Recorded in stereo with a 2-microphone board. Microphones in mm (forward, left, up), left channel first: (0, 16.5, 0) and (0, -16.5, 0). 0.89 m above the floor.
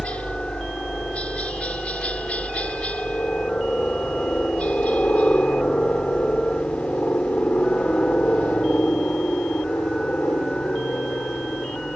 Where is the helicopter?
40° left (ahead or behind); by 12.0 s 50° left (ahead or behind).